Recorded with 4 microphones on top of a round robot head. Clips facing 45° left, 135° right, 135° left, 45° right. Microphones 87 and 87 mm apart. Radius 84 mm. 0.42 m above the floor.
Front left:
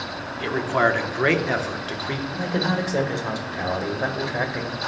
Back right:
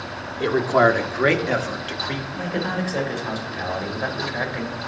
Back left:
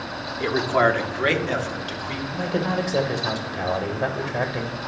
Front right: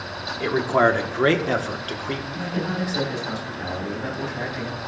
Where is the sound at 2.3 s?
110° left, 1.8 m.